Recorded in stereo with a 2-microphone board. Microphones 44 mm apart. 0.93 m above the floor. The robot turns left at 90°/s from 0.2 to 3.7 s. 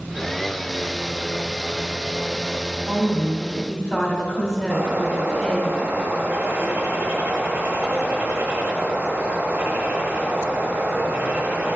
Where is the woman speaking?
105° right, 2.5 m; by 5.7 s straight behind, 2.5 m.